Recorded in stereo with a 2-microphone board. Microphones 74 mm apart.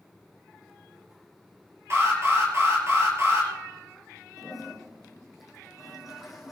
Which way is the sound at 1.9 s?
40° right (ahead or behind).